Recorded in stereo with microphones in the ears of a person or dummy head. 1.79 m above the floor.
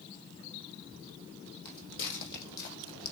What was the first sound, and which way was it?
Footsteps, 50° left (ahead or behind).